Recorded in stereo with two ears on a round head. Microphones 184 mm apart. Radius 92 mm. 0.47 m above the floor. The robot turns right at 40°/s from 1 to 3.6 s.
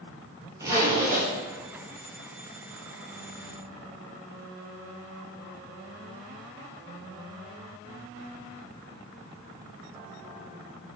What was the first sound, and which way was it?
A zipper, 15° right (ahead or behind).